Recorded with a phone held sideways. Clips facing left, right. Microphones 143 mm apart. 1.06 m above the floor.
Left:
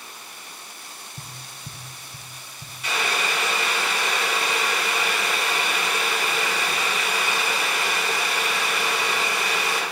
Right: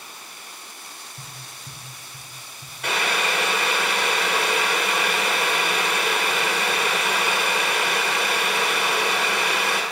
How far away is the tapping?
About 0.7 m.